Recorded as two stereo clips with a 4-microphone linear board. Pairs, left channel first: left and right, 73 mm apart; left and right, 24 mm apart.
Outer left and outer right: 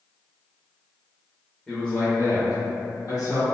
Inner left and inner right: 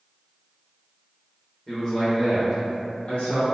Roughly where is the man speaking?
Centre.